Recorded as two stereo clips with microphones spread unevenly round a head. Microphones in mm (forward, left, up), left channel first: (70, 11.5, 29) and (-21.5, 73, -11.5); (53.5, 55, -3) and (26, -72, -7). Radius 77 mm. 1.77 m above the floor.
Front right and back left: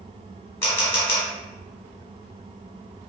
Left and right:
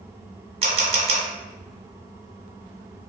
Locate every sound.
0.6 s a camera shutter: 85° right, 1.1 m